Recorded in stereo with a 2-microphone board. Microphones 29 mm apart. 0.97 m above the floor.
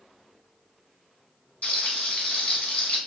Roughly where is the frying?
Left.